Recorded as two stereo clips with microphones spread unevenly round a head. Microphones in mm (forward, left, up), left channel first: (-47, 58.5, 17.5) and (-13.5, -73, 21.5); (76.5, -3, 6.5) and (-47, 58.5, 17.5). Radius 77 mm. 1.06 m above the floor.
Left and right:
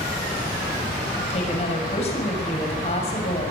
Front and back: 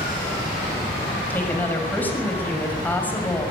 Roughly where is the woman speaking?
Ahead left.